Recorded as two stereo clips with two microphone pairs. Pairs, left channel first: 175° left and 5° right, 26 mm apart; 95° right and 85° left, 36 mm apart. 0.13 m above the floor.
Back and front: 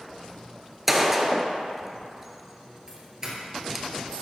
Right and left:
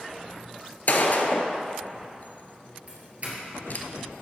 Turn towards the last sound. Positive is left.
turn(degrees=55)